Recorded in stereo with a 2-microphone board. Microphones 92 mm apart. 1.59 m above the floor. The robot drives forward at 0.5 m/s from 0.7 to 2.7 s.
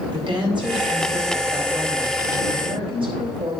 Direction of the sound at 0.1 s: 65° right (ahead or behind).